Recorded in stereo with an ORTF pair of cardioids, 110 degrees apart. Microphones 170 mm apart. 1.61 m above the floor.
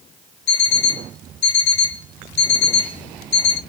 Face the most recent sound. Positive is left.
turn(degrees=65)